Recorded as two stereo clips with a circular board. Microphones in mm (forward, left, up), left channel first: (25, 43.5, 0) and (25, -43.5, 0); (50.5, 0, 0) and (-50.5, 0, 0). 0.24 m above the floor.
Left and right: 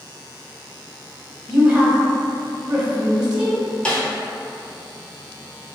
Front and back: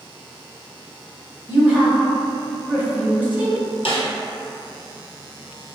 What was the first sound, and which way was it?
A woman speaking, 150° right.